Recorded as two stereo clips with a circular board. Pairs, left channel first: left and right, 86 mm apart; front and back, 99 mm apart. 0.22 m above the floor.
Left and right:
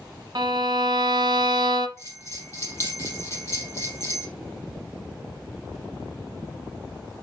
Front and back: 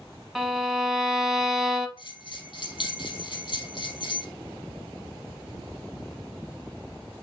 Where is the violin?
90° right, 1.0 m.